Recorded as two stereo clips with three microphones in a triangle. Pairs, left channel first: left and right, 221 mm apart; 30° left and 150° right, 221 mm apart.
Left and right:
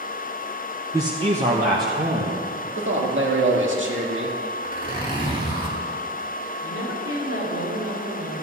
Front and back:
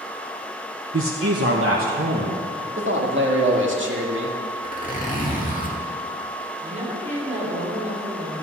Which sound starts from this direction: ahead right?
A zipper, at 4.6 s.